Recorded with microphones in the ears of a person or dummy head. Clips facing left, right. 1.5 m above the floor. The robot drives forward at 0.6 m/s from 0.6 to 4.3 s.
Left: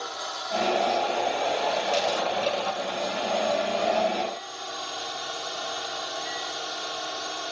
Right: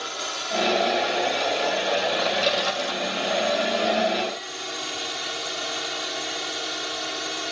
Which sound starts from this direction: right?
A drone, at 0.0 s.